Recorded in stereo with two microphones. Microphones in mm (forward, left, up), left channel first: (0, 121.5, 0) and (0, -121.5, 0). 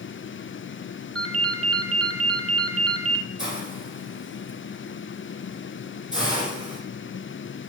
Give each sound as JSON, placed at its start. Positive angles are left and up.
{"t": 1.1, "sound": "a ringtone", "side_deg": -65, "distance_m": 1.5}
{"t": 3.4, "sound": "a hiss", "side_deg": -5, "distance_m": 3.5}